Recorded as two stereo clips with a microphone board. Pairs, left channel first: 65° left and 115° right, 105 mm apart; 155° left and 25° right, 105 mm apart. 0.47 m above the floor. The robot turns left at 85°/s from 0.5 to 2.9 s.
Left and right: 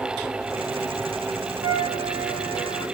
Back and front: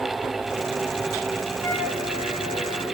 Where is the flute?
120° right, 2.5 m; by 2.9 s 135° left, 2.5 m.